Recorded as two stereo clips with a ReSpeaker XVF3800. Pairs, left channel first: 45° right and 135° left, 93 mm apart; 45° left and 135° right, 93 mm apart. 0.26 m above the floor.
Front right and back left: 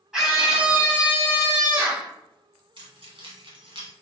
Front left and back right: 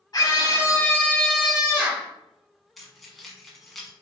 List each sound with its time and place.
0.1 s a scream: 55° left, 1.8 m; by 2.1 s straight behind, 1.5 m
2.8 s keys jangling: 135° left, 1.3 m